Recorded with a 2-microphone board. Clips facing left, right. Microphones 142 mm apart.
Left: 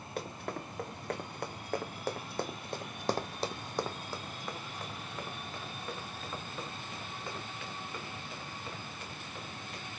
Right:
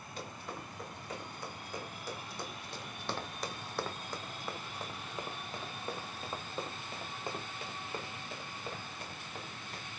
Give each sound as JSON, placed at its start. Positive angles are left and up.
{"t": 0.2, "sound": "running footsteps", "side_deg": 65, "distance_m": 2.0}